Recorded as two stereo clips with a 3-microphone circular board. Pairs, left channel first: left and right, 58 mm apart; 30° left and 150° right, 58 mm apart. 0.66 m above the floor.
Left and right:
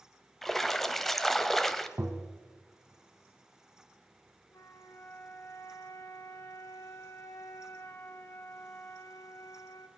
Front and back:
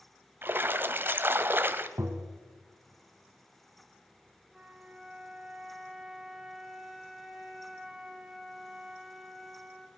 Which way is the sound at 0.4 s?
170° left.